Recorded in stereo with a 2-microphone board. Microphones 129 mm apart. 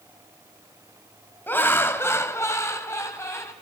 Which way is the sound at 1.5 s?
15° left (ahead or behind).